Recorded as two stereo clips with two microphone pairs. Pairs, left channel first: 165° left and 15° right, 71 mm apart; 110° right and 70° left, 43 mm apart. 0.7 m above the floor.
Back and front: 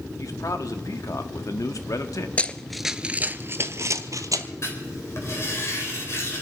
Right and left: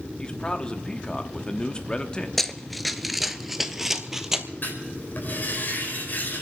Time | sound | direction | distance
0.2 | a man speaking | straight behind | 1.0 m
2.4 | running footsteps | 165° left | 0.7 m
4.6 | writing | 150° right | 3.5 m